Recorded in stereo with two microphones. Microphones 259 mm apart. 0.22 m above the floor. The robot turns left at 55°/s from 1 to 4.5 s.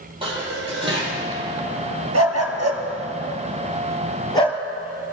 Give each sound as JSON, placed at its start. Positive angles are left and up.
{"t": 0.2, "sound": "dishes clattering", "side_deg": -20, "distance_m": 4.5}
{"t": 2.1, "sound": "a dog barking", "side_deg": -70, "distance_m": 1.7}